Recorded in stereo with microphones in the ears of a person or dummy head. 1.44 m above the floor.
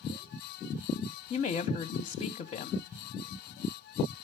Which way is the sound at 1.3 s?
30° left (ahead or behind).